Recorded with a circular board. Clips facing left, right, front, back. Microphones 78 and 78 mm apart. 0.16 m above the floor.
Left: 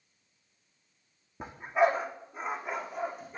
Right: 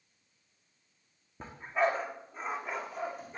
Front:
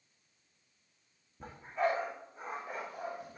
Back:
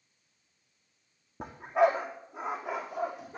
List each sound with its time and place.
1.4 s a dog barking: 165° left, 2.5 m; by 3.4 s straight behind, 3.5 m